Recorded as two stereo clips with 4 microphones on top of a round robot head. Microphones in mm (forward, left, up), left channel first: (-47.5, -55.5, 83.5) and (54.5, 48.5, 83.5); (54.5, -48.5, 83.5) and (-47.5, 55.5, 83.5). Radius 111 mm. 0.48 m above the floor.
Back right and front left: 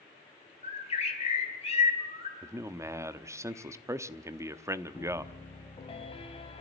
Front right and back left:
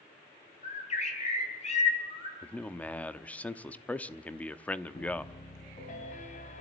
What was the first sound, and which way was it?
A bird, 90° right.